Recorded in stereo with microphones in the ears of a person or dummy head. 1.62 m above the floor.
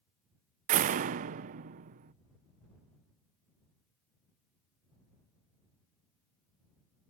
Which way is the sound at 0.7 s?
40° right (ahead or behind).